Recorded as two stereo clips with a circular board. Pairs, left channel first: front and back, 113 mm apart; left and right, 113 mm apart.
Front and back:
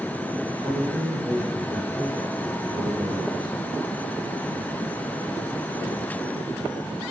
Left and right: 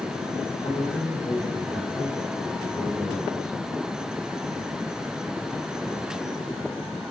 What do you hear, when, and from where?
0.5 s a man speaking: 130° left, 2.5 m